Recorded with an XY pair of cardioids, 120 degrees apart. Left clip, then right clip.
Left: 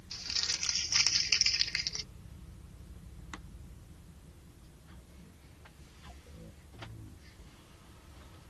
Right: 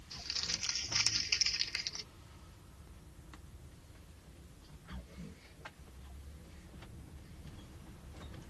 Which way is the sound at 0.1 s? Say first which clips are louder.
Left 4 dB; 30° left.